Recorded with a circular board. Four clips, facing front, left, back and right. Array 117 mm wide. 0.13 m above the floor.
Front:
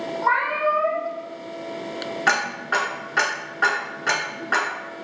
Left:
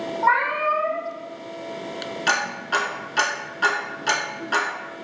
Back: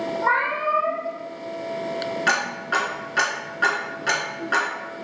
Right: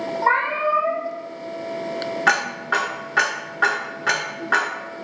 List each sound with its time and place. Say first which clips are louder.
0.2 s a cat meowing: even, front 2 dB; 100° right, 1.4 m
2.3 s ticking: right 2 dB, front 3 dB; 75° right, 0.9 m